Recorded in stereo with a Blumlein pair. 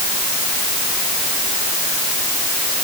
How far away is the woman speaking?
No woman speaking in this recording.